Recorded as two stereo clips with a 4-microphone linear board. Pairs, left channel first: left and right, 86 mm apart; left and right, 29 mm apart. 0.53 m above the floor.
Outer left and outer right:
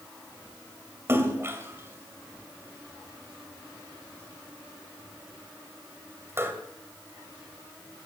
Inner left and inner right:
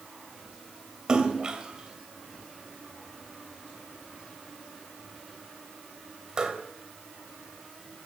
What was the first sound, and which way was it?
A splash, 30° right (ahead or behind).